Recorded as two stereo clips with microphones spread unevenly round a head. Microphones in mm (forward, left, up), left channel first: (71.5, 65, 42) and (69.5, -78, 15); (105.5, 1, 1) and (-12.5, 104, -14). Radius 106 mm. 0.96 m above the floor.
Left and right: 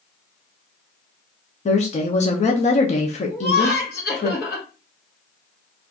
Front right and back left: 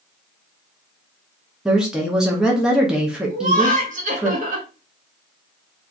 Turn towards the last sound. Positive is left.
turn(degrees=105)